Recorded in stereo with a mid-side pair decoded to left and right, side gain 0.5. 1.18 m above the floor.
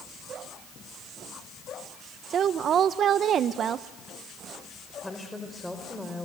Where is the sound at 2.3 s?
55° right, 0.7 m.